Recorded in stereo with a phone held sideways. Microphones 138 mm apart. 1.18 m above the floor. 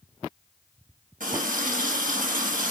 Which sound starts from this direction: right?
A running tap, at 1.2 s.